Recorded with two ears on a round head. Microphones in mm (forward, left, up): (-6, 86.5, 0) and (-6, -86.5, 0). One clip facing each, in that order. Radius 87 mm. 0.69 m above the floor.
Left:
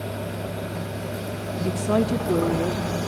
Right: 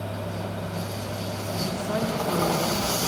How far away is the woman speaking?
About 1.2 m.